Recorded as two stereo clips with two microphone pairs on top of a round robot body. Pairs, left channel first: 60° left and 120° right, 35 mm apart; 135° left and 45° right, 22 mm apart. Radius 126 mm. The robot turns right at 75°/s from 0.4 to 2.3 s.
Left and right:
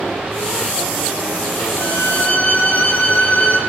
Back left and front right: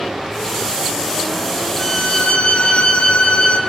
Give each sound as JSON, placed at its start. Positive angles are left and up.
{"t": 1.8, "sound": "a violin", "azimuth_deg": 70, "distance_m": 4.0}